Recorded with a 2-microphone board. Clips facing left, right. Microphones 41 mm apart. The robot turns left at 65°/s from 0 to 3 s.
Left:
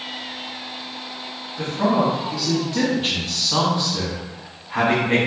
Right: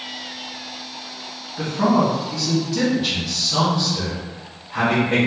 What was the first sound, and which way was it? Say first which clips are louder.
A man speaking: right 2 dB; 140° right.